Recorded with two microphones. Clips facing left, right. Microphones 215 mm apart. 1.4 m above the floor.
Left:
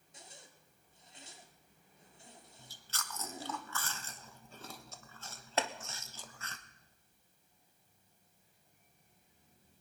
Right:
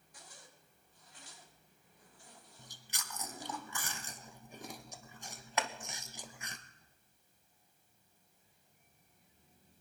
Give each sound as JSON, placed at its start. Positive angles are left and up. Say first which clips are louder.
{"t": 0.1, "sound": "a zipper", "louder": "left 2 dB", "side_deg": 25, "distance_m": 1.5}
{"t": 2.6, "sound": "chewing", "louder": "left 3 dB", "side_deg": -15, "distance_m": 0.9}
{"t": 5.6, "sound": "chopping", "louder": "left 2 dB", "side_deg": 30, "distance_m": 0.8}